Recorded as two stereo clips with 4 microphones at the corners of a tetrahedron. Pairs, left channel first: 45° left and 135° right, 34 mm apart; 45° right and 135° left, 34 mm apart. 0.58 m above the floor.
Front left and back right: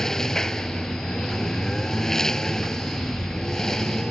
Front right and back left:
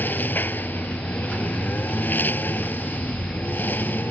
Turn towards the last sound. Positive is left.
turn(degrees=-30)